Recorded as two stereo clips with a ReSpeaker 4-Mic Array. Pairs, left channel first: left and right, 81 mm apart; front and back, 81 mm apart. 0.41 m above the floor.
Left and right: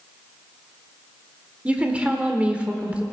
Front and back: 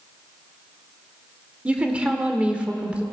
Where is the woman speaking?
130° right, 1.1 m.